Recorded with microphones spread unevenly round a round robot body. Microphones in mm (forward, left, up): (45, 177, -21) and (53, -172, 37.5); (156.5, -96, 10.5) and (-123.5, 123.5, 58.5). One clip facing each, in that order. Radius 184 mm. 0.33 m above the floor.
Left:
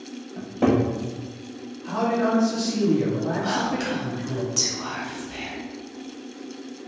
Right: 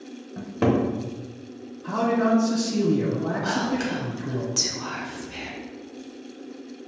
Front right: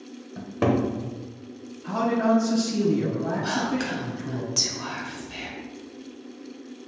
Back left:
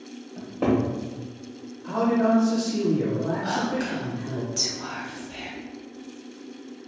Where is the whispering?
Straight ahead, 1.0 m.